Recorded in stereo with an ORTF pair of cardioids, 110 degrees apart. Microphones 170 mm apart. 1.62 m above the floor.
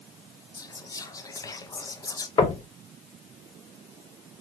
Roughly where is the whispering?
Ahead.